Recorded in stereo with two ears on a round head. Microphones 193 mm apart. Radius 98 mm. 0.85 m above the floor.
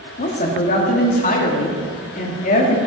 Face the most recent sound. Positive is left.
turn(degrees=40)  # may be behind; listen again after turning